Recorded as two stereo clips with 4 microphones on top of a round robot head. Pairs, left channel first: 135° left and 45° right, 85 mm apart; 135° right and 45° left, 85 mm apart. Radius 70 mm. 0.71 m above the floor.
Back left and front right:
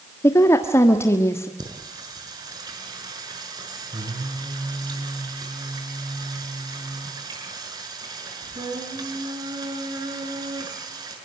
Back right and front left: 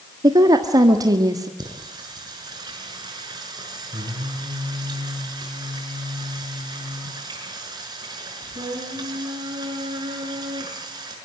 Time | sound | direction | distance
0.2 | a woman speaking | 80° left | 1.5 m
1.6 | singing | straight ahead | 6 m